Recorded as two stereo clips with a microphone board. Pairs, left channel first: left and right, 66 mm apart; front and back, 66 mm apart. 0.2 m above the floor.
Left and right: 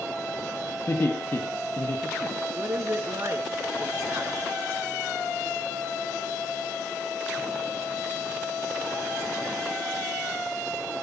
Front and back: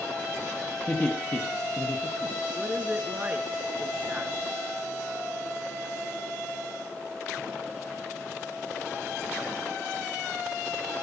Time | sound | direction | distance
0.9 | laughter | 65° left | 2.5 m
2.5 | a woman speaking | 125° right | 2.5 m